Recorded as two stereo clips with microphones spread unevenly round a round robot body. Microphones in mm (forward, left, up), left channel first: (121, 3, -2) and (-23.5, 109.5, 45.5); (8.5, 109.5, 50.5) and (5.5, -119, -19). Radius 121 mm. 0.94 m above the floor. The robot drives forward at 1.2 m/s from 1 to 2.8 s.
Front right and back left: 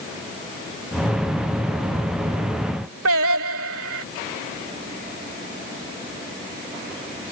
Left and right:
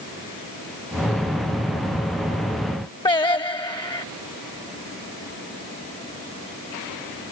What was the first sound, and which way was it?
Singing, 160° left.